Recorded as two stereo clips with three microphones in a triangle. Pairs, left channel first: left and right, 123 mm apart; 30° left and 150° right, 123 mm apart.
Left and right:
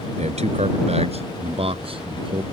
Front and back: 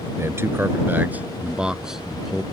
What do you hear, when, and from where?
0.2 s a man speaking: 85° right; by 2.4 s 55° right